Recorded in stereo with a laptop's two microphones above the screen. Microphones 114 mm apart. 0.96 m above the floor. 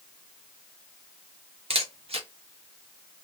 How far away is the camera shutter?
About 0.8 m.